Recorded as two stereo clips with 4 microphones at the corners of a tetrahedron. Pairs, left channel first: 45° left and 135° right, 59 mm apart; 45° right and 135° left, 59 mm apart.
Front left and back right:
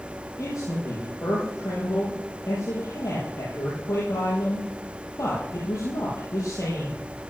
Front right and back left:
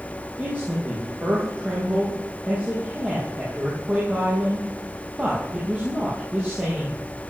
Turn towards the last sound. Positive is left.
turn(degrees=70)